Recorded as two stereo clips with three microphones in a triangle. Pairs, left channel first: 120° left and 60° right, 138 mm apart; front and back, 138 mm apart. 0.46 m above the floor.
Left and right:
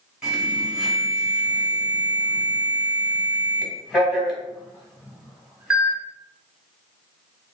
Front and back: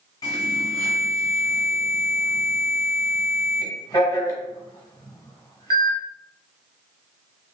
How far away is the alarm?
About 1.1 m.